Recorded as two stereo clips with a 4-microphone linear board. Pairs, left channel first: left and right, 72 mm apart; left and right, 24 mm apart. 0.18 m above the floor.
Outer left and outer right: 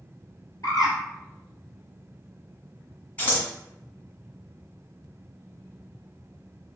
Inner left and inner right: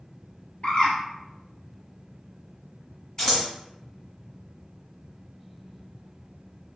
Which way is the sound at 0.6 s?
60° left (ahead or behind).